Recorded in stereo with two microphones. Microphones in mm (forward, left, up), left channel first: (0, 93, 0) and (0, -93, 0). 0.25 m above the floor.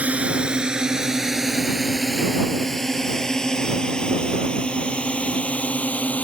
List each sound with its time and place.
0.0 s a drone: 10° right (ahead or behind); by 6.2 s 5° left (ahead or behind)